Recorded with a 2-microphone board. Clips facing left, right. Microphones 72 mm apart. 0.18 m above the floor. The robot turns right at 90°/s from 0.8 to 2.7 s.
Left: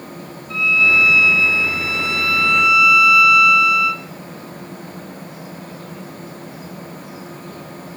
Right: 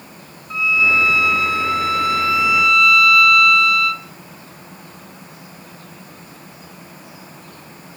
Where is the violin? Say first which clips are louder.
Left 1 dB; 165° right, 1.0 m; by 4.0 s 5° left, 1.0 m.